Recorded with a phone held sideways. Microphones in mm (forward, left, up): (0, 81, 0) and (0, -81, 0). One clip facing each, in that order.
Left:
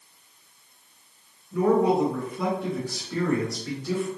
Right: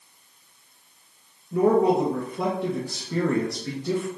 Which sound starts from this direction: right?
A man speaking, at 1.5 s.